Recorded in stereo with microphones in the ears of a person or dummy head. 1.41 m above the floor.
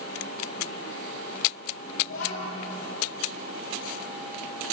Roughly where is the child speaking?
Left.